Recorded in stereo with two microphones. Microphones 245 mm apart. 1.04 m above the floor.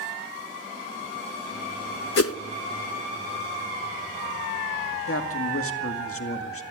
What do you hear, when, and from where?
2.2 s a whoosh: 70° left (ahead or behind), 0.5 m
5.1 s a man speaking: 65° left (ahead or behind), 2 m